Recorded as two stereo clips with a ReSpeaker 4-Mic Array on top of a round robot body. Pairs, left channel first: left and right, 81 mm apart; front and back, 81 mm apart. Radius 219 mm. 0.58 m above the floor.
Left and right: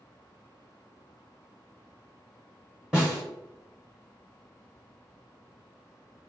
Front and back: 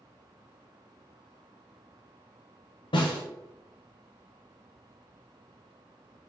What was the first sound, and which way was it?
A snare drum, 5° right.